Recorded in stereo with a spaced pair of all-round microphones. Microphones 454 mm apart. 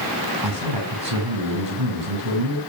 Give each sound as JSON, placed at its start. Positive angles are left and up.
{"t": 0.4, "sound": "a man speaking", "side_deg": -75, "distance_m": 7.0}